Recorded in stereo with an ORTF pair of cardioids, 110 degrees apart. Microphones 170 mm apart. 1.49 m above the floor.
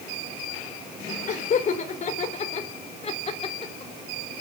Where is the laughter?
45° left, 5 m; by 3.9 s 30° left, 3.5 m.